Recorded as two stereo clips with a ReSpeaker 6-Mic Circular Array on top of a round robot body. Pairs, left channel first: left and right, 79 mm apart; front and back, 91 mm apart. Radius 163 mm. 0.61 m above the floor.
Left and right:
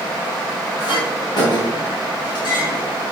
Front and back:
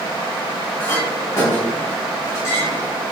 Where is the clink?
60° left, 3 m.